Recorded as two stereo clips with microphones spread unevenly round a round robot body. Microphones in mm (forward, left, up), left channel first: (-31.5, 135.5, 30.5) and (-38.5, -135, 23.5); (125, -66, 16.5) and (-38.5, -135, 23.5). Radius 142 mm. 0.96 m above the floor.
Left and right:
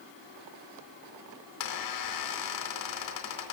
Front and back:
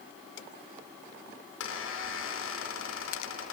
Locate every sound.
1.6 s a squeak: 65° left, 4.5 m